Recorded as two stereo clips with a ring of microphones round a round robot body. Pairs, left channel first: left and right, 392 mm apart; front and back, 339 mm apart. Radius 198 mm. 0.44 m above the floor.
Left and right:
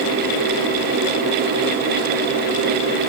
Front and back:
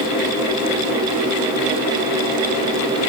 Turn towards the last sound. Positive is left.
No sound to turn to.